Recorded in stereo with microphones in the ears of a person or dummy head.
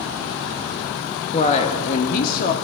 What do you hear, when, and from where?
1.3 s a woman speaking: 30° left (ahead or behind), 1.2 m; by 2.5 s 45° left (ahead or behind), 1.9 m